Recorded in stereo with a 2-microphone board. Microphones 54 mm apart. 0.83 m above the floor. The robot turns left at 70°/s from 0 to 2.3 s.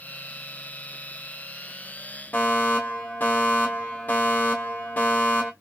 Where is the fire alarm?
30° left (ahead or behind), 1.7 m.